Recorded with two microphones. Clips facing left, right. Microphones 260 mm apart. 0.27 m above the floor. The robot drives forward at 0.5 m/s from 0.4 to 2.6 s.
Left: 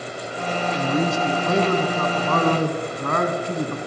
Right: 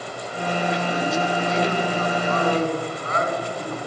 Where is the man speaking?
60° left (ahead or behind), 3 m.